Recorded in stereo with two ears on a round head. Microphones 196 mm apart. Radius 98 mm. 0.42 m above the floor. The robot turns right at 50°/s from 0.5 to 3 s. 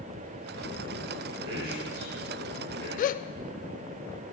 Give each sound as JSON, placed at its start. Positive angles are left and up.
{"t": 1.4, "sound": "a man speaking", "side_deg": -60, "distance_m": 7.5}
{"t": 3.0, "sound": "a gasp", "side_deg": 40, "distance_m": 0.5}